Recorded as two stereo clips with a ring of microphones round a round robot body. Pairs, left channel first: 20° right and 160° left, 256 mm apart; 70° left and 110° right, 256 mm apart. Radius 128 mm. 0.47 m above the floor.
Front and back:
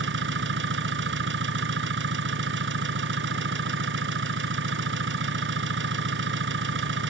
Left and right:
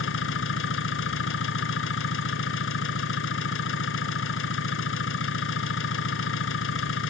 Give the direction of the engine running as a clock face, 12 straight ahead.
8 o'clock.